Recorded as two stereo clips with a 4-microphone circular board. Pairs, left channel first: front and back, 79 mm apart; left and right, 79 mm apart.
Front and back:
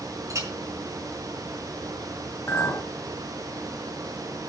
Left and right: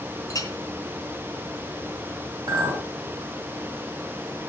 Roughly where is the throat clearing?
I don't hear throat clearing.